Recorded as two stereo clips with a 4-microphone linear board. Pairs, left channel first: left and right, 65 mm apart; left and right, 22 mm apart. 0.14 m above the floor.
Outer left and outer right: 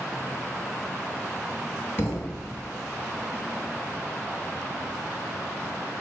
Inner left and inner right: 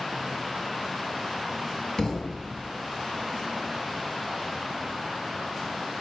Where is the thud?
35° left (ahead or behind), 1.4 m.